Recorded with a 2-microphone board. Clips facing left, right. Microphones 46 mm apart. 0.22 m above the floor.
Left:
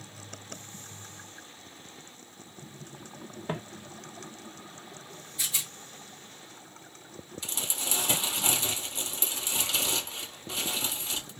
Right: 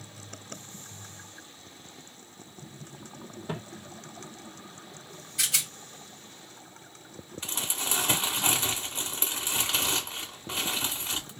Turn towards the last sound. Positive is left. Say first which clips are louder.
# right 3 dB
turn(degrees=-35)  # may be behind; listen again after turning